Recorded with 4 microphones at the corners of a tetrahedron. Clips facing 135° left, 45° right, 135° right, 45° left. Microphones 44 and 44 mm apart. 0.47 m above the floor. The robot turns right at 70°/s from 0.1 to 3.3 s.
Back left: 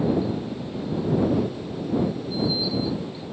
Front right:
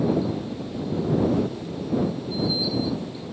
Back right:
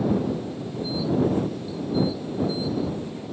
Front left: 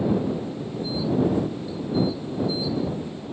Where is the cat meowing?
I don't hear a cat meowing.